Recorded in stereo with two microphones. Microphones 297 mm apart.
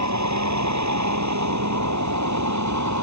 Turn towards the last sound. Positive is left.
turn(degrees=-85)